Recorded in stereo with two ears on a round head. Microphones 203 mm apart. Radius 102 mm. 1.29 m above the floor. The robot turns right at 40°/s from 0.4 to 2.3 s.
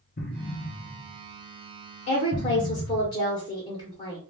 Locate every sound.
0.2 s an explosion: 40° left (ahead or behind), 0.8 m; by 3.1 s 35° right (ahead or behind), 0.8 m
2.1 s a woman speaking: 35° left (ahead or behind), 0.9 m; by 4.2 s 30° left (ahead or behind), 0.9 m